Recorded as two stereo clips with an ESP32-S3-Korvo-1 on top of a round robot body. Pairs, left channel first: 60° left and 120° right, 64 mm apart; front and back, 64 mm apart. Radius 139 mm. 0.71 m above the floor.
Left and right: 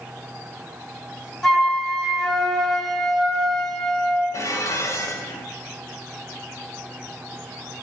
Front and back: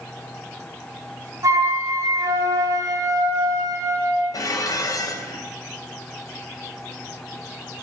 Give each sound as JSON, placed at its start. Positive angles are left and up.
{"t": 1.4, "sound": "a flute", "azimuth_deg": 145, "distance_m": 3.0}
{"t": 4.3, "sound": "dishes clattering", "azimuth_deg": 20, "distance_m": 3.5}